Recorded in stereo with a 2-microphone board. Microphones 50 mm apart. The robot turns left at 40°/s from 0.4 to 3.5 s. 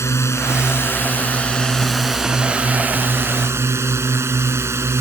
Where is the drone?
65° left; by 5.0 s 60° right.